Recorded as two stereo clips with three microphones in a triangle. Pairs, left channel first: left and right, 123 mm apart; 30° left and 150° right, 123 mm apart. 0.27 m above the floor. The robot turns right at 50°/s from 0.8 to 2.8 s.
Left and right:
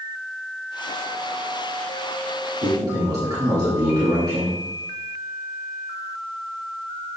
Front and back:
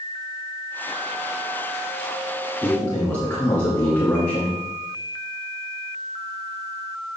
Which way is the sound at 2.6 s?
55° right.